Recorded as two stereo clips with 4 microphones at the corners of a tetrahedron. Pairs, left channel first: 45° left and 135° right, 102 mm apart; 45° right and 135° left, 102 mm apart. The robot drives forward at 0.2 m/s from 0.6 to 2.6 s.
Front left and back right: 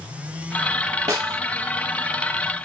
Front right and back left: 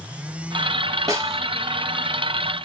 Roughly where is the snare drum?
Behind.